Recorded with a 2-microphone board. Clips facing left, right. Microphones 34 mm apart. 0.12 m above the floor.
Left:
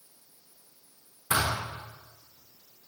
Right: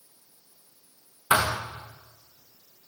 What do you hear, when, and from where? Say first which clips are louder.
1.3 s a thud: right 5 dB; 40° right (ahead or behind), 5 m